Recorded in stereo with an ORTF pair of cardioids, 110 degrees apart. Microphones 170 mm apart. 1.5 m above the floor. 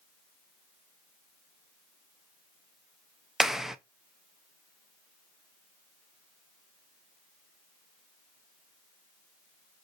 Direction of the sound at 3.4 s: Straight ahead.